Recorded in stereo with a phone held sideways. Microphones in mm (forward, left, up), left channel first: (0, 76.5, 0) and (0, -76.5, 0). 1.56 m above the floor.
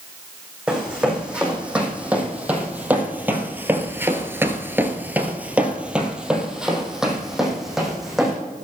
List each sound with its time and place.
0.7 s running footsteps: 5° right (ahead or behind), 5 m; by 8.4 s centre (ahead or behind), 5 m